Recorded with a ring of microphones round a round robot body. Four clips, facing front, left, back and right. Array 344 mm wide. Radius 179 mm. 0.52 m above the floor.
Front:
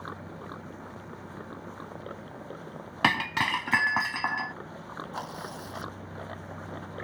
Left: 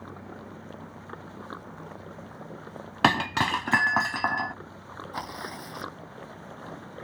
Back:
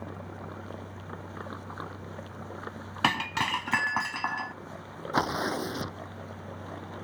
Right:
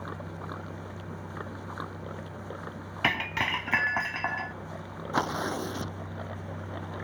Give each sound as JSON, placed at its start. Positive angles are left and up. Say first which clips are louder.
{"t": 3.0, "sound": "breaking glass", "louder": "left 7 dB, front 1 dB", "azimuth_deg": 85}
{"t": 5.1, "sound": "tearing paper", "louder": "right 8 dB, back 13 dB", "azimuth_deg": -145}